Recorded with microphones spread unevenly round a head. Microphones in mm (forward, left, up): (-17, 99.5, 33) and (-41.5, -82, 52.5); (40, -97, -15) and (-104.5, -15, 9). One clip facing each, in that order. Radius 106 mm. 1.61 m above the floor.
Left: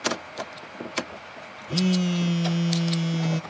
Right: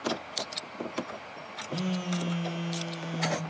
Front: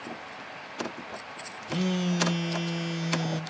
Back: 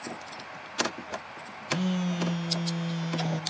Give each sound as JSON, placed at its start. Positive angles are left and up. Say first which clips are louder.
{"t": 1.7, "sound": "a phone buzzing", "louder": "left 8 dB, front 1 dB", "azimuth_deg": 45, "distance_m": 1.0}